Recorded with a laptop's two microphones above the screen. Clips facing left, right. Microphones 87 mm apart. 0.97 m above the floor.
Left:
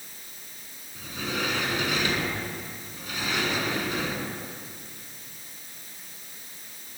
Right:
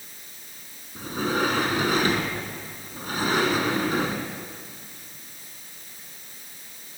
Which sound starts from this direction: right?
A sliding door, at 0.9 s.